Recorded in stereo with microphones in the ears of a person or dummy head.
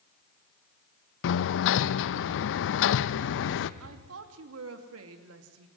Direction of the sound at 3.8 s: 80° right.